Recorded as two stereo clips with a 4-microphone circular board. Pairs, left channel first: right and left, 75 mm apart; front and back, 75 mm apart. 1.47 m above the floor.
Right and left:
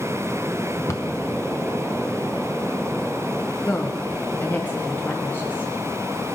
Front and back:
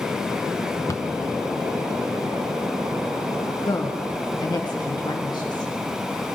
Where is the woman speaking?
25° right, 1.3 m.